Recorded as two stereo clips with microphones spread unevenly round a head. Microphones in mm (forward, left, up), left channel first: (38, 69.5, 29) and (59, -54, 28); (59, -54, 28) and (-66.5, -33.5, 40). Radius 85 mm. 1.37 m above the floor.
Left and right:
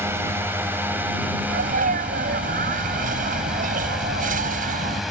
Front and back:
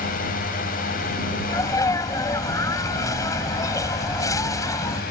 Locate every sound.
0.0 s a drone: 10° right; by 5.1 s 10° left
1.5 s a sneeze: 75° right